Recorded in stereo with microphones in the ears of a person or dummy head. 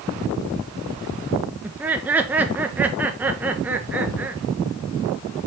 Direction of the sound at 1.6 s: 10° right (ahead or behind).